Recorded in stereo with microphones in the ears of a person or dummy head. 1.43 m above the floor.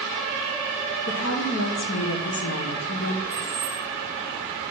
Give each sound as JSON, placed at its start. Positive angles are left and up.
{"t": 1.1, "sound": "a woman speaking", "side_deg": 75, "distance_m": 1.1}
{"t": 3.3, "sound": "keys jangling", "side_deg": 45, "distance_m": 2.5}